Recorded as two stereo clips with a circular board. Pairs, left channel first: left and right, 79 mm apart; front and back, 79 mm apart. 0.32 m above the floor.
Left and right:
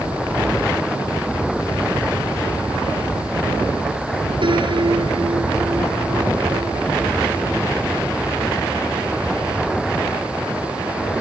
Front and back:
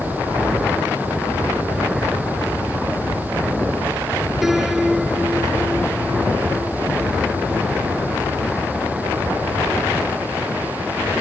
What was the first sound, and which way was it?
A piano, 95° right.